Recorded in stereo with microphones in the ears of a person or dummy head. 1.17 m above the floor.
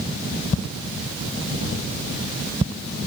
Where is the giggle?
I don't hear a giggle.